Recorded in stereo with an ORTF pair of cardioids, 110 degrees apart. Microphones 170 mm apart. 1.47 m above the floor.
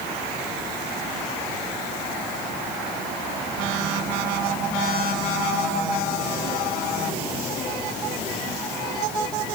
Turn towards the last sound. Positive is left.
No sound to turn to.